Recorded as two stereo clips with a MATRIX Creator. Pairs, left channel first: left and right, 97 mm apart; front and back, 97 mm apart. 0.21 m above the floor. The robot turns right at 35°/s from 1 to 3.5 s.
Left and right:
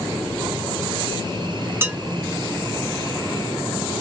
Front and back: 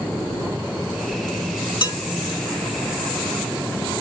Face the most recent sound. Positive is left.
turn(degrees=30)